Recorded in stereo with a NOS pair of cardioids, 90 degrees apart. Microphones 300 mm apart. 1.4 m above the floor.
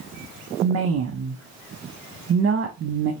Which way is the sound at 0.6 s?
45° right.